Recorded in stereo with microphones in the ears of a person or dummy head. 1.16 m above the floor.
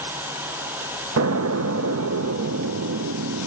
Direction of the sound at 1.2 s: 70° right (ahead or behind).